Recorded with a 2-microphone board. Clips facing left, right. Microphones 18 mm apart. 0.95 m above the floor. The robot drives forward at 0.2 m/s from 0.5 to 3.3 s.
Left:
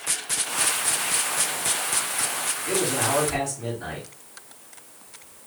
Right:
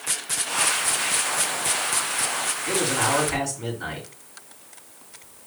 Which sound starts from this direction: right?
A man speaking, at 2.7 s.